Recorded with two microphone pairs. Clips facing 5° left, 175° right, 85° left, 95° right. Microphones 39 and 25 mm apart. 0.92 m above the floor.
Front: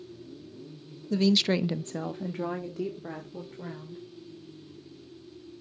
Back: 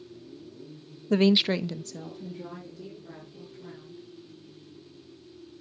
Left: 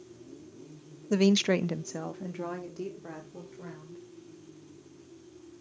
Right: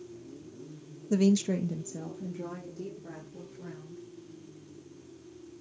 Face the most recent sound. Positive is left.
turn(degrees=25)